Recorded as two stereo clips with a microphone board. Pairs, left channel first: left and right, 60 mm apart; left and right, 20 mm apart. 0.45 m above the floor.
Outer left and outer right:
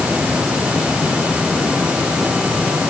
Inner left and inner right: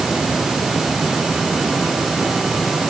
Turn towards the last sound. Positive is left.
No sound to turn to.